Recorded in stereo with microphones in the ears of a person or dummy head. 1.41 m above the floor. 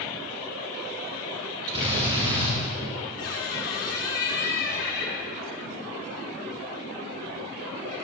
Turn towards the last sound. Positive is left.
turn(degrees=60)  # may be behind; listen again after turning